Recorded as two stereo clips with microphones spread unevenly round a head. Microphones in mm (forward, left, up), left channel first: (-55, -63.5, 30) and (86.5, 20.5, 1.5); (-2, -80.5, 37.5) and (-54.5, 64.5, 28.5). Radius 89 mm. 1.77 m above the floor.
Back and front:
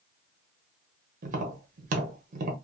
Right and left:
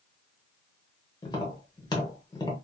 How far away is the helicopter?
I don't hear a helicopter.